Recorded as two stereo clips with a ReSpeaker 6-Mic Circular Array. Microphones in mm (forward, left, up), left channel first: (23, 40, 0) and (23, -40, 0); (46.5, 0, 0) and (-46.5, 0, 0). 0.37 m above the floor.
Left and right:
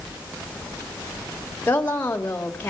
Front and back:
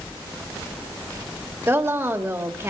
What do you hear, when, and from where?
1.7 s a woman speaking: 140° left, 1.5 m